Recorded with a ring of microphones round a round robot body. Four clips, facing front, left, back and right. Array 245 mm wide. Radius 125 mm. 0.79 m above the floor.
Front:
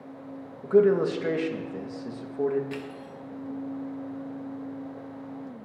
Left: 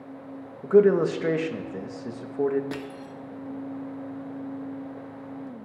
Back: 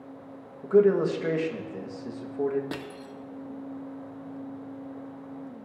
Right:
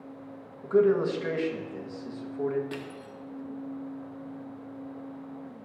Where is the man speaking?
85° left, 0.7 m.